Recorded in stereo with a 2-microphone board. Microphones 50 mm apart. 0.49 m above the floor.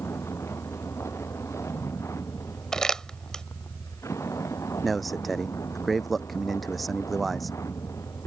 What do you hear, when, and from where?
0.0 s a vehicle: 65° left (ahead or behind); by 8.3 s 85° left
2.7 s crumpling: 10° left (ahead or behind)
4.8 s a man speaking: centre (ahead or behind)